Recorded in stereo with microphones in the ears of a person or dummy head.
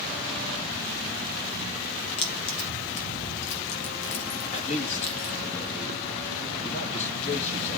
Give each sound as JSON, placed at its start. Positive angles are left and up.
{"t": 2.2, "sound": "keys jangling", "side_deg": 25, "distance_m": 0.8}
{"t": 4.5, "sound": "a man speaking", "side_deg": 35, "distance_m": 2.5}